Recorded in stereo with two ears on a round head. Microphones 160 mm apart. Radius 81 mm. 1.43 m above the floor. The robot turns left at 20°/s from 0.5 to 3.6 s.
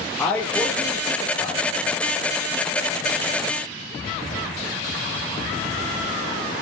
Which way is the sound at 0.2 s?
5° left (ahead or behind).